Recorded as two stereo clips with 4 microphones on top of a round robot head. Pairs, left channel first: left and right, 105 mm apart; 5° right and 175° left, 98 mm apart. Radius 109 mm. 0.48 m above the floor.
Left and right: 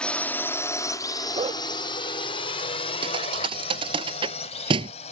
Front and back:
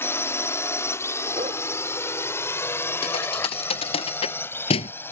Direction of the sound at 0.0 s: 20° left.